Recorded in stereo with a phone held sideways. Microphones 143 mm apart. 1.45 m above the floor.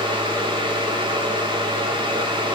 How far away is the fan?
About 1.5 m.